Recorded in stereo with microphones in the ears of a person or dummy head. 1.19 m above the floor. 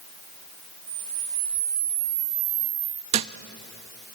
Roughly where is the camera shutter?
Right.